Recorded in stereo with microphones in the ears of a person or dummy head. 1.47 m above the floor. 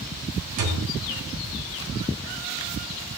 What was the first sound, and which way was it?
A thud, 70° right (ahead or behind).